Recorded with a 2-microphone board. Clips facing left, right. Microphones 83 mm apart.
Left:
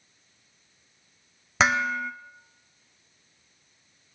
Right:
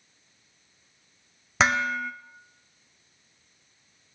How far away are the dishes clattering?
About 1.0 m.